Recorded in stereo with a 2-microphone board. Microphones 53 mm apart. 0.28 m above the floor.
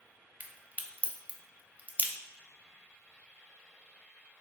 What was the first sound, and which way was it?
A crack, 30° right (ahead or behind).